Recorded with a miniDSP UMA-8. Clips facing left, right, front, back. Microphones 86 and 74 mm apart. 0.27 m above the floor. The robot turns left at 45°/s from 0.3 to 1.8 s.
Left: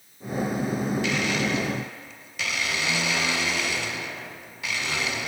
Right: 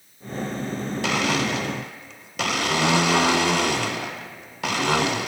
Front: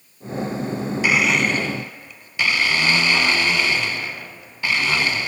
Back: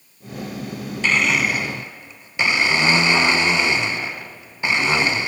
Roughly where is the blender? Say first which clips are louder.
Right 2 dB, even; right.